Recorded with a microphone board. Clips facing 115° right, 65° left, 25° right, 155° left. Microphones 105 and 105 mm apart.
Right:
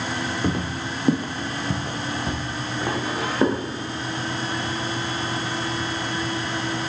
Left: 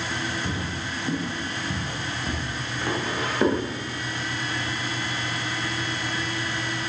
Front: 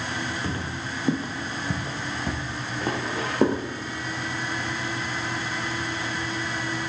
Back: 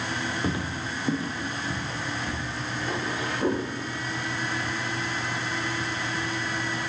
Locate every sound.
0.4 s footsteps: 135° right, 1.8 m; by 3.6 s 35° right, 4.5 m